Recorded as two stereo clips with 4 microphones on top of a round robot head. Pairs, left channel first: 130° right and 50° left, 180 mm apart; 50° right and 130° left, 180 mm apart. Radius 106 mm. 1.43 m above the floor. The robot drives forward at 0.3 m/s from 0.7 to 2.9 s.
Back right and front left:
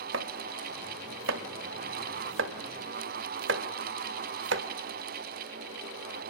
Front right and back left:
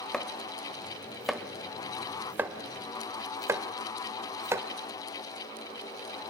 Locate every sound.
0.1 s chopping: 40° left, 1.9 m; by 4.7 s 60° left, 1.6 m